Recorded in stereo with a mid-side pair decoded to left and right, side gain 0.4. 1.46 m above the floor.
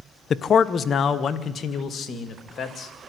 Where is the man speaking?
60° left, 0.7 m; by 2.9 s 55° left, 2.5 m.